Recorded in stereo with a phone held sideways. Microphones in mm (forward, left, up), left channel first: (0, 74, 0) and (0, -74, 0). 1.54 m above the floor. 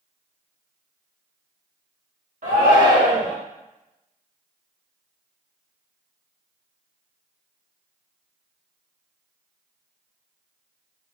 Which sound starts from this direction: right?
A shout, at 2.4 s.